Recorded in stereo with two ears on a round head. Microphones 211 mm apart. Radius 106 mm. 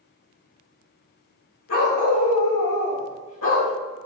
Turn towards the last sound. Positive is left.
turn(degrees=60)  # may be behind; listen again after turning